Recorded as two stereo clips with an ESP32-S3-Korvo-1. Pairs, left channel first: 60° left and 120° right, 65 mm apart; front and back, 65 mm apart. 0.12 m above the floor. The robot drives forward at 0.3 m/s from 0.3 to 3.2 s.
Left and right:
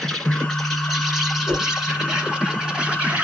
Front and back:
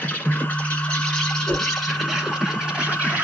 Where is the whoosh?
Straight ahead, 1.6 m.